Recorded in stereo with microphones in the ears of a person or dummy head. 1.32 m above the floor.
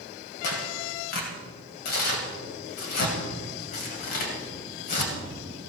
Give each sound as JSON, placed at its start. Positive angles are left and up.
{"t": 0.4, "sound": "tearing paper", "side_deg": 50, "distance_m": 1.9}